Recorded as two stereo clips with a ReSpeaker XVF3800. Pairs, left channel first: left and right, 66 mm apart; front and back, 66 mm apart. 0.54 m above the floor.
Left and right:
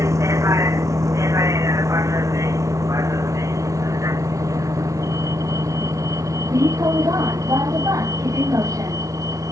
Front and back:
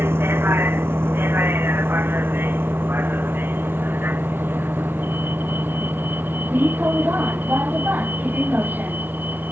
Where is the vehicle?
130° right; by 9.5 s 120° right.